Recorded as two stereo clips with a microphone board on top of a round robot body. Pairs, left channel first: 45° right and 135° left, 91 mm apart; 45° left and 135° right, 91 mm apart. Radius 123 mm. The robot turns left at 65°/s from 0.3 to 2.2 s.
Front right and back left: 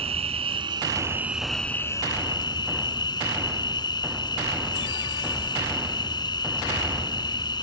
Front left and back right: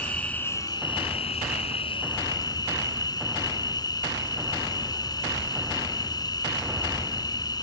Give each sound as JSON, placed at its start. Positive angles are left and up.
{"t": 0.0, "sound": "an insect", "azimuth_deg": 120}